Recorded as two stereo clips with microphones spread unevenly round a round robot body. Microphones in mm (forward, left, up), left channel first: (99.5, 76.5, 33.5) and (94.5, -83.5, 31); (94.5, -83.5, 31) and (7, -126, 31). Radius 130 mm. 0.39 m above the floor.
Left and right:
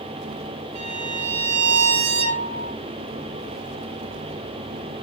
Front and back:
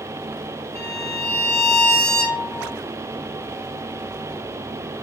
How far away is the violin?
About 1.7 m.